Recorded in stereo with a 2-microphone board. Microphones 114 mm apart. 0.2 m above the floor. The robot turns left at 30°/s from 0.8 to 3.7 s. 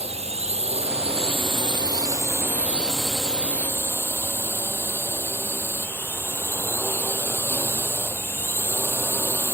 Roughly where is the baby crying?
No baby crying in this recording.